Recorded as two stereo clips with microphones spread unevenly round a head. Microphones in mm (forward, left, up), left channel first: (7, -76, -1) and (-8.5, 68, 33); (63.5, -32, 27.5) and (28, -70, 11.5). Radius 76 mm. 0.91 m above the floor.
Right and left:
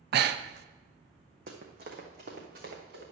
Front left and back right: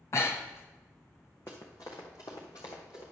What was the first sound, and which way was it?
Breathing, 100° left.